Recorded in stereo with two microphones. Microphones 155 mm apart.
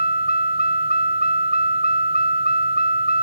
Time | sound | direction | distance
0.0 | a vehicle | 85° left | ?